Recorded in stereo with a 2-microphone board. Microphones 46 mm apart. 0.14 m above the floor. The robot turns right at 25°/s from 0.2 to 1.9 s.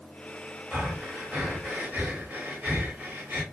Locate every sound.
0.7 s breathing: 20° right (ahead or behind), 1.6 m; by 3.4 s 35° right (ahead or behind), 1.6 m